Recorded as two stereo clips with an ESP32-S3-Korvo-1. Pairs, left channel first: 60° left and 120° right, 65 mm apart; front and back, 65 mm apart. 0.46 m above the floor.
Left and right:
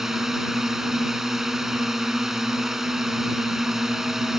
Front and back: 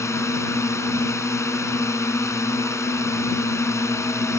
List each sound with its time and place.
0.0 s a drone: 35° right